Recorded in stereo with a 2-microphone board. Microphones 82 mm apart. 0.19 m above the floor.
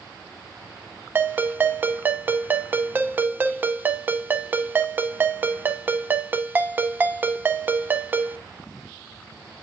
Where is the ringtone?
25° right (ahead or behind), 0.7 m.